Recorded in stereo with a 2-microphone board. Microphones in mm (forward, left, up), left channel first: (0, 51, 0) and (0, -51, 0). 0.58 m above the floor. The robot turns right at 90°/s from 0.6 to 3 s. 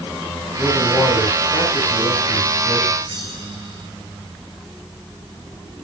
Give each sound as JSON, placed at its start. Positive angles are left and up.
{"t": 0.6, "sound": "a man speaking", "azimuth_deg": -5, "distance_m": 5.5}
{"t": 3.0, "sound": "a bell", "side_deg": -50, "distance_m": 3.5}